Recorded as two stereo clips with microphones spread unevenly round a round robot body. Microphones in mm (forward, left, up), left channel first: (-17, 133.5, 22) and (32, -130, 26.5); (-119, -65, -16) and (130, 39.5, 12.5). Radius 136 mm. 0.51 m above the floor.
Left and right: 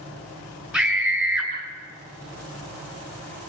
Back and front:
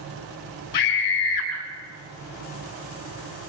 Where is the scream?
165° right, 6 m.